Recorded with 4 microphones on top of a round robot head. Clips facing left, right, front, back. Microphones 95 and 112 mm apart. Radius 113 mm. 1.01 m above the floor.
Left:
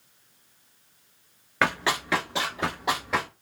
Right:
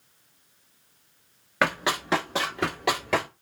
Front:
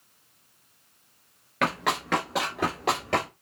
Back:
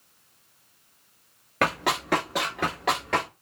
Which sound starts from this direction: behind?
Running footsteps, at 1.6 s.